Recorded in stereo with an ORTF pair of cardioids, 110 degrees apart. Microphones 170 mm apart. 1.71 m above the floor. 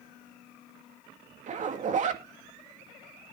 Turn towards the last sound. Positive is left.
turn(degrees=-50)